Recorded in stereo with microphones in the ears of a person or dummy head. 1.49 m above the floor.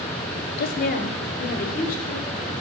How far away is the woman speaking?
About 0.5 m.